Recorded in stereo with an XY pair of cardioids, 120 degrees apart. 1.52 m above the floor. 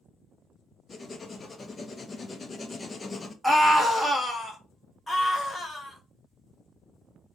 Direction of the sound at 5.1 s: 15° left.